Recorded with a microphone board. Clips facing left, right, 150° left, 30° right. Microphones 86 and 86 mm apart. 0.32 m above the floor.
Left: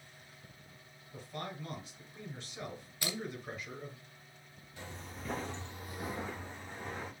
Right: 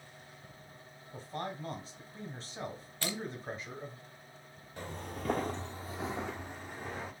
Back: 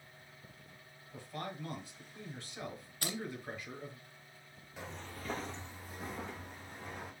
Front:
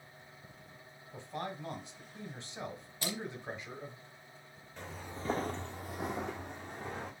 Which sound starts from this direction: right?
A man speaking, at 1.1 s.